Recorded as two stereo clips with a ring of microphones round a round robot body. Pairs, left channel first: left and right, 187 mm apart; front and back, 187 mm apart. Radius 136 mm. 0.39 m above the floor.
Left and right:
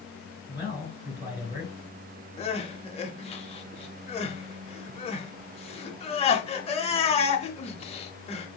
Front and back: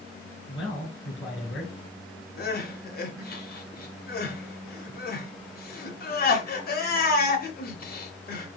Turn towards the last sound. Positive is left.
turn(degrees=35)